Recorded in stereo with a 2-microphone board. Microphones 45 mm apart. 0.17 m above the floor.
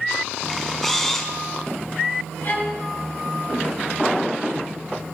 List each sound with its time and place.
0.5 s a camera shutter: 5° left (ahead or behind), 1.2 m
2.4 s a violin: 45° left (ahead or behind), 2 m